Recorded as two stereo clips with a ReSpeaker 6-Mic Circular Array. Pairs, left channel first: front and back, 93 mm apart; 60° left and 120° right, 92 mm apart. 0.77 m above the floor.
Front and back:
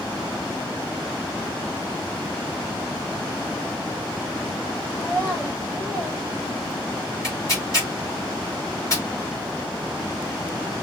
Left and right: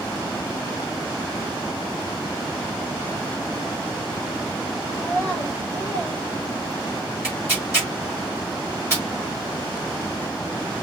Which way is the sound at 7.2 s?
55° right.